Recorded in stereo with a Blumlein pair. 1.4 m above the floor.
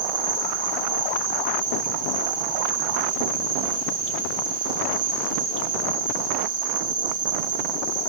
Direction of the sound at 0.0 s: 60° right.